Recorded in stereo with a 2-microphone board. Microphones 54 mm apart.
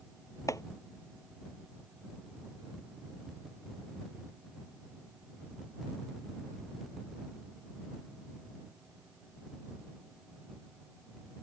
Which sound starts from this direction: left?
Chopping, at 0.5 s.